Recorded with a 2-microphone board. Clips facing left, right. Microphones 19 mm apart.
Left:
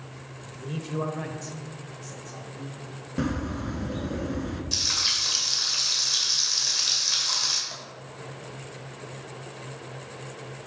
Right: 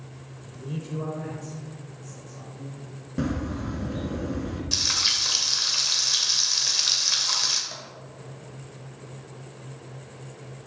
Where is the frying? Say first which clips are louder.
Right 2 dB; 10° right (ahead or behind), 1.5 m.